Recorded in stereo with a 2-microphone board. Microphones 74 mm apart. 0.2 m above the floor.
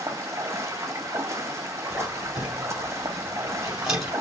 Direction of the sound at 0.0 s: 45° right (ahead or behind).